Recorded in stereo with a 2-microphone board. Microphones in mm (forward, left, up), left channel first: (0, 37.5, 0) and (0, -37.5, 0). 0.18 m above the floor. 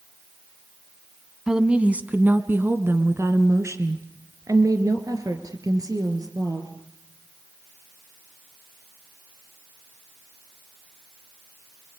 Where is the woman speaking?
10° right (ahead or behind), 1.4 m; by 6.7 s 55° right (ahead or behind), 4 m.